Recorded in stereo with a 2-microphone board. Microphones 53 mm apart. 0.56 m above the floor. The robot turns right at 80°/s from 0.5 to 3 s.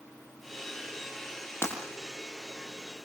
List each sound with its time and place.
1.6 s breaking glass: 50° left (ahead or behind), 6.5 m; by 1.7 s 40° left (ahead or behind), 6.5 m